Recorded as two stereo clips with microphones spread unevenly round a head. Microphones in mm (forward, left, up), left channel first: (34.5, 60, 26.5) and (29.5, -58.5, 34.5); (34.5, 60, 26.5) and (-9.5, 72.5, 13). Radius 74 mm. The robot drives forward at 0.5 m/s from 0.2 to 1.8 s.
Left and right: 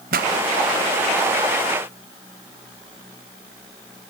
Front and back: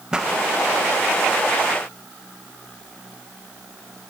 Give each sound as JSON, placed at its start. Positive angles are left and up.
{"t": 0.1, "sound": "a pop", "azimuth_deg": -105, "distance_m": 1.2}